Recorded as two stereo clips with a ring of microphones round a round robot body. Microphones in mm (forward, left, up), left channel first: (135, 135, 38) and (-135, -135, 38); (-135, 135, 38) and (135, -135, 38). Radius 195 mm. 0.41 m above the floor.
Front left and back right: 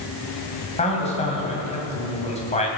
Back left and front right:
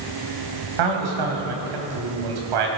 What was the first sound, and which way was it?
A man speaking, 30° right.